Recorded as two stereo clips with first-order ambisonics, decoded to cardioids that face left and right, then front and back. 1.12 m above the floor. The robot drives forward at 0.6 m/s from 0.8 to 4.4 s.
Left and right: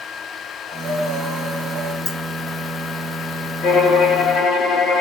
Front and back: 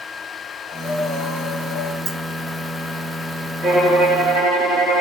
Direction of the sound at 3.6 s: 135° left.